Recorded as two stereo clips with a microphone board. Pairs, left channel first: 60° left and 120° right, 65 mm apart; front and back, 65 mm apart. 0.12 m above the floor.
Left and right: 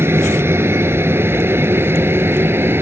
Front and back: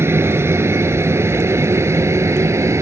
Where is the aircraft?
150° right; by 2.8 s 160° right.